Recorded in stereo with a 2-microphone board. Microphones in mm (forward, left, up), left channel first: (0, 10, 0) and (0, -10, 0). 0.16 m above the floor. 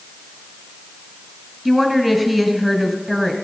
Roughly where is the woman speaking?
Centre.